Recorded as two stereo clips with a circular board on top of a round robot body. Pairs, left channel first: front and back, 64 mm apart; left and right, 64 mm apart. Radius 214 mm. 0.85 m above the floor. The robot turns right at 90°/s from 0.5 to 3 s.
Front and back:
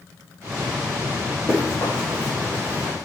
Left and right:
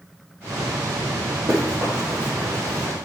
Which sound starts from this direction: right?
Running footsteps, at 1.5 s.